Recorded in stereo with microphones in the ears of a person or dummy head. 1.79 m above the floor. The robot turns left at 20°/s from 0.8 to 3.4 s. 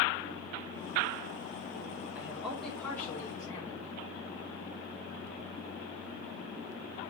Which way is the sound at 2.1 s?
10° right (ahead or behind).